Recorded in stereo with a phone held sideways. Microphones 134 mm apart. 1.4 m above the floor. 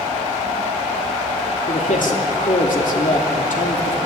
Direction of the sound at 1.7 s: 75° left (ahead or behind).